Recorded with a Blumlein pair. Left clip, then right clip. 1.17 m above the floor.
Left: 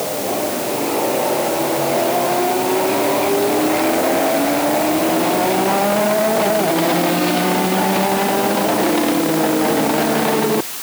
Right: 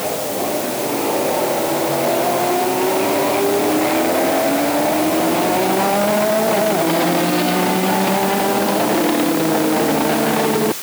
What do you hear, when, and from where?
Only background noise.